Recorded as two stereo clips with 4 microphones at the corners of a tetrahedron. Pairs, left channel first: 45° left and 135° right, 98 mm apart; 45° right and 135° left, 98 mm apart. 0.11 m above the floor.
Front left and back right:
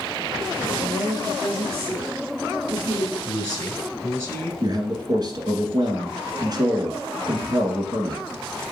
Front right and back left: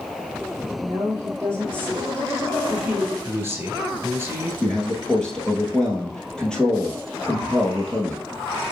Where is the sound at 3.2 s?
100° left, 1.1 m.